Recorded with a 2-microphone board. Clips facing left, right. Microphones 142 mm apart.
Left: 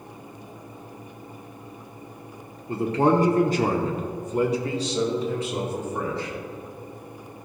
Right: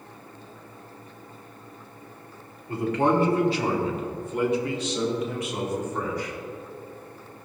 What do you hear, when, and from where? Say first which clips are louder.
2.7 s a man speaking: left 2 dB; 20° left (ahead or behind), 1.0 m; by 6.3 s 25° left (ahead or behind), 3 m